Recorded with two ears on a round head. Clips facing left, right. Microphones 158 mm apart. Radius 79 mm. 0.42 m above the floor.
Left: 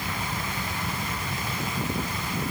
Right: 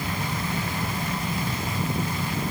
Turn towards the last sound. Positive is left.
No sound to turn to.